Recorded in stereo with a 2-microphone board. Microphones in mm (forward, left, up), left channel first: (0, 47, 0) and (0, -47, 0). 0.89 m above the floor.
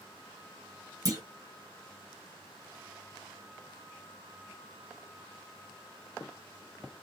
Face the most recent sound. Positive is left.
turn(degrees=-40)  # may be behind; listen again after turning